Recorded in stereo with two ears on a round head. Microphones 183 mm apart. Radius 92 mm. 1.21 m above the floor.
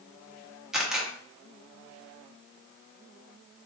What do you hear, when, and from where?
0.7 s a camera shutter: centre (ahead or behind), 0.9 m